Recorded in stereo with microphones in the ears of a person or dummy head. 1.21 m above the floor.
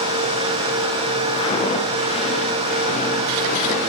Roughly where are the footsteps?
Left.